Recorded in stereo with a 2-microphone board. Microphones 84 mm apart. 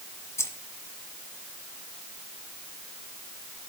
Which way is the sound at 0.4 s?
35° left (ahead or behind).